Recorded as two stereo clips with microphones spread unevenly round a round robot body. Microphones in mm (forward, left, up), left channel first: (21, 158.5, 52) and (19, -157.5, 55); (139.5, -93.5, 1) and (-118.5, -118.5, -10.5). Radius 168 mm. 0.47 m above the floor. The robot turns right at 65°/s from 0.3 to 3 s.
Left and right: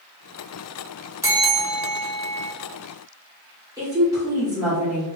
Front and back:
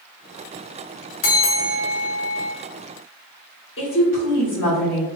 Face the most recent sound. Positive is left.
turn(degrees=-15)